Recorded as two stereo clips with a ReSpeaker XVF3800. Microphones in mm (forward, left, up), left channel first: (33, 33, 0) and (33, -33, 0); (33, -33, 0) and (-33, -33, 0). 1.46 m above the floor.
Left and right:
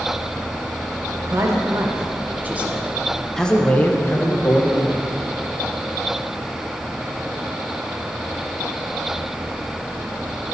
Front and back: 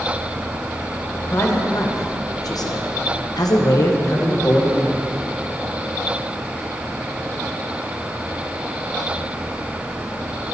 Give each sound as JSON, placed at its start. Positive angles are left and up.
{"t": 1.1, "sound": "a man speaking", "azimuth_deg": -50, "distance_m": 1.9}